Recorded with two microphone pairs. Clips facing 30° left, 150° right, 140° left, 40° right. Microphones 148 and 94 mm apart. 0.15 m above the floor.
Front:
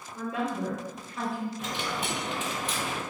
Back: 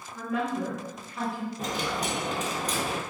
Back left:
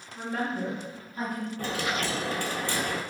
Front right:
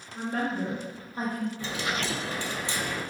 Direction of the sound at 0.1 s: 15° right.